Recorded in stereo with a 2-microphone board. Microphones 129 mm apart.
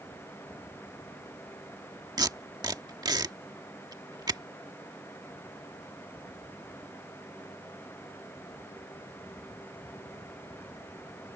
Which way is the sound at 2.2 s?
30° right (ahead or behind).